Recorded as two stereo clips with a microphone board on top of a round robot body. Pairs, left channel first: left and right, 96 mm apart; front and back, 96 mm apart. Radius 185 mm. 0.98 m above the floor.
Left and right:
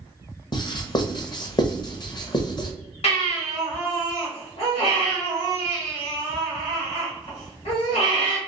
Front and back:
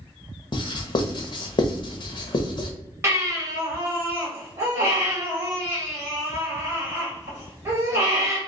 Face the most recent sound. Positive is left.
turn(degrees=115)